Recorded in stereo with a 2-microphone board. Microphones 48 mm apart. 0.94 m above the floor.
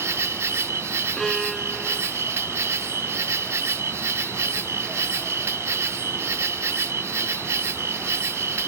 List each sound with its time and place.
0.0 s an insect: 70° right (ahead or behind)
1.2 s a violin: 5° left (ahead or behind)